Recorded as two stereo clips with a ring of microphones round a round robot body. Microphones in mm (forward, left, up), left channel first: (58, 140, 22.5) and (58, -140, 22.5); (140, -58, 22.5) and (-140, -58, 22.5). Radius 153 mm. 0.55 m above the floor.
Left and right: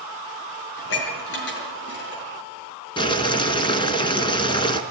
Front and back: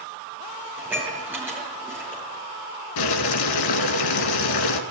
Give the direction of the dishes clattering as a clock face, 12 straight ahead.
9 o'clock.